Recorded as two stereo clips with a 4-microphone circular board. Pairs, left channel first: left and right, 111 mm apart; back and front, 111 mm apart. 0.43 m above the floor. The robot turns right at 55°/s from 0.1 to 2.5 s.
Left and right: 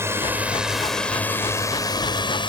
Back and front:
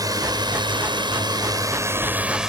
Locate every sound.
0.0 s a drone: 35° right; by 2.5 s 85° left